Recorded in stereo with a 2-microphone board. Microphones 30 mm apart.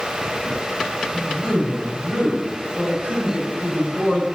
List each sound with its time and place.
1.1 s a man speaking: 65° right (ahead or behind), 4 m